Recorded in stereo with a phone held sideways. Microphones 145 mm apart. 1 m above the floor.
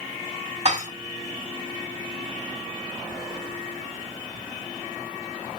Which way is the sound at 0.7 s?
50° right (ahead or behind).